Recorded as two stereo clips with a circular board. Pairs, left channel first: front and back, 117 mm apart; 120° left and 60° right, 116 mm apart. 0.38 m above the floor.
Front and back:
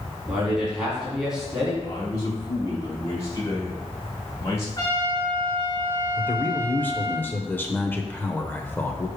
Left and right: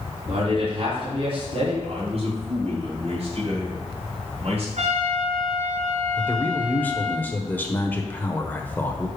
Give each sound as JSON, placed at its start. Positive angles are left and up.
{"t": 0.3, "sound": "a man speaking", "azimuth_deg": -95, "distance_m": 2.5}
{"t": 1.8, "sound": "a man speaking", "azimuth_deg": -60, "distance_m": 2.5}
{"t": 4.8, "sound": "a trumpet", "azimuth_deg": -60, "distance_m": 3.0}
{"t": 6.2, "sound": "a man speaking", "azimuth_deg": 60, "distance_m": 0.9}